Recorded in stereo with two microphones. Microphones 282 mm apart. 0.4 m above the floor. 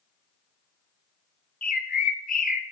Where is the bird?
30° left (ahead or behind), 0.5 m.